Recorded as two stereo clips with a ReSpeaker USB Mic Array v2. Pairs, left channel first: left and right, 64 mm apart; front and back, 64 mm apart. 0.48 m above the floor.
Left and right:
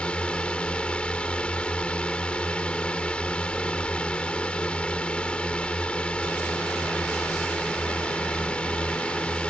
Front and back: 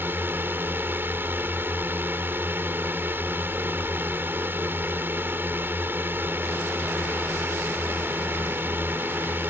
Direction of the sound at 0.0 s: 150° left.